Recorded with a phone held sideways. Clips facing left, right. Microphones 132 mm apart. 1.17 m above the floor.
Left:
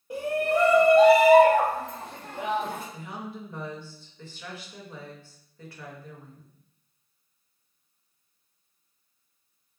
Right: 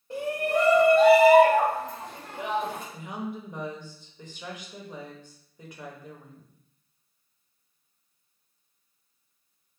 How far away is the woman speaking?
About 1.0 m.